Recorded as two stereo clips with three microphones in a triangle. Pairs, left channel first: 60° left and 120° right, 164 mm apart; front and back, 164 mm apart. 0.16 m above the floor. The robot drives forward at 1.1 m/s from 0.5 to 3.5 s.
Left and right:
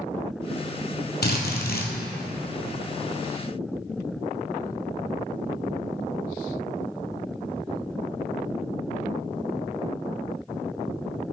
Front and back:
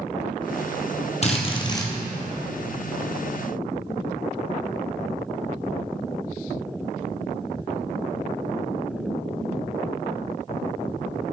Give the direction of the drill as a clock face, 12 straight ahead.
10 o'clock.